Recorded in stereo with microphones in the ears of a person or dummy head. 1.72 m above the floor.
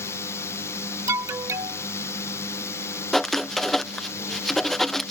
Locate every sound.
0.0 s a drone: 20° left (ahead or behind)
1.1 s an alarm: 10° right (ahead or behind)
3.1 s writing: 5° right (ahead or behind)